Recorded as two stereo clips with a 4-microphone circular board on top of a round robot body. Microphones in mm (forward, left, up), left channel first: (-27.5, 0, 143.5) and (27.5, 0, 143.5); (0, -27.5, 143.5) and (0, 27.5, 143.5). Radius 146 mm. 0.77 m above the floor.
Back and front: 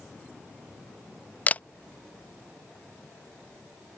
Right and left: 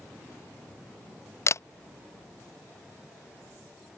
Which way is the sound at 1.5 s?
120° right.